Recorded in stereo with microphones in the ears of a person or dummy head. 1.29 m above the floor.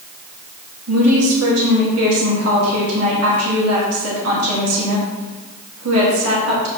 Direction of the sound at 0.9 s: 85° right.